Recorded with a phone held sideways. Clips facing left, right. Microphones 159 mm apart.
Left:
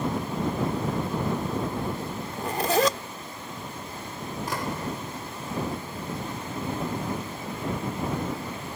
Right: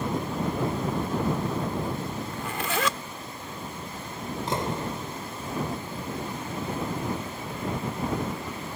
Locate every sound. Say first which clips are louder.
2.3 s a zipper: left 9 dB; 40° left (ahead or behind)
4.5 s a door slam: right 2 dB; 25° right (ahead or behind)